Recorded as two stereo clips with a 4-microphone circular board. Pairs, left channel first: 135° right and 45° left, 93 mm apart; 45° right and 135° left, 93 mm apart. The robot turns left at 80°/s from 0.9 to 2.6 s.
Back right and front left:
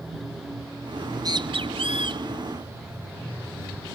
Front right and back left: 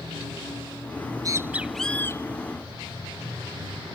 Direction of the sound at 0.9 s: 115° left.